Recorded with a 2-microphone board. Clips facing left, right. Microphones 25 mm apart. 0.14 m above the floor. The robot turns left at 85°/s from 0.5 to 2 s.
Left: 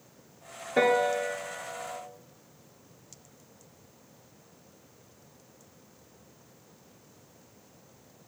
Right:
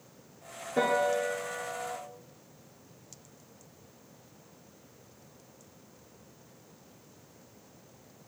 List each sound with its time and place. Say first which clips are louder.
0.8 s a piano: left 3 dB; 45° left (ahead or behind), 1.2 m; by 2.0 s 35° right (ahead or behind), 1.2 m